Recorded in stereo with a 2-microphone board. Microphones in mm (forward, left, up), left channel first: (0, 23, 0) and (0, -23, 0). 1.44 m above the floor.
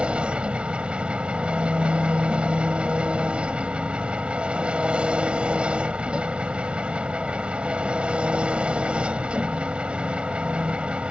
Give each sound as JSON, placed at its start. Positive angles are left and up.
{"t": 0.0, "sound": "an engine running", "side_deg": -25}